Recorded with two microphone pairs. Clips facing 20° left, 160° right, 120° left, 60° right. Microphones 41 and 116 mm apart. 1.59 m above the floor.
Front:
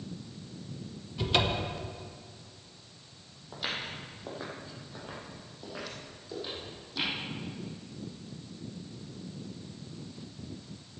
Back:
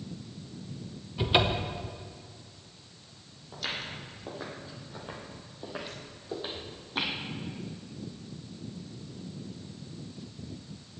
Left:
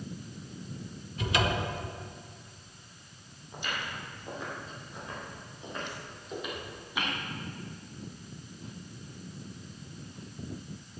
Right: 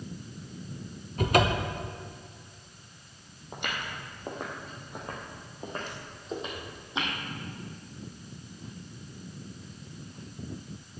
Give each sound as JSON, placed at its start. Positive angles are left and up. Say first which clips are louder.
{"t": 1.2, "sound": "a cupboard door", "louder": "back 2 dB, right 5 dB", "azimuth_deg": -90, "distance_m": 0.9}
{"t": 3.5, "sound": "footsteps", "louder": "even, right 1 dB", "azimuth_deg": -50, "distance_m": 3.0}